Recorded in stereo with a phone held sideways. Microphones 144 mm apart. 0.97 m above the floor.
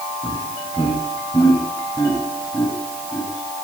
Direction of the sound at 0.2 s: 30° left (ahead or behind).